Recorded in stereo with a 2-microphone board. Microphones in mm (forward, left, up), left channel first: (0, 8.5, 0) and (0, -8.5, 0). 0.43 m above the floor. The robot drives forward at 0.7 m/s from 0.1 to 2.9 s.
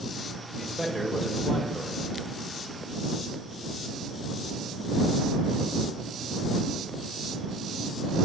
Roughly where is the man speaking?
Centre.